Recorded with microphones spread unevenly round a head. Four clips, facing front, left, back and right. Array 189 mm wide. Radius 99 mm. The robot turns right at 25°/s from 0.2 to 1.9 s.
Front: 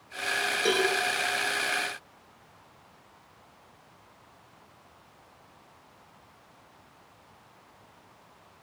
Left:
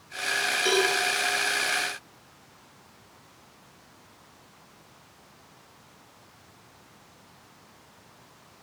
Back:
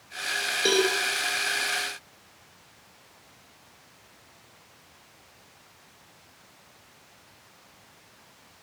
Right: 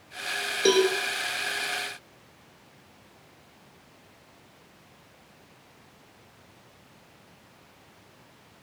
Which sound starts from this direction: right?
A cowbell, at 0.7 s.